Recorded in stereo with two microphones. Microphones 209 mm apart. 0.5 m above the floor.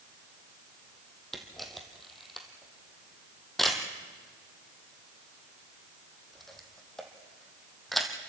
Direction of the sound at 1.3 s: Centre (ahead or behind).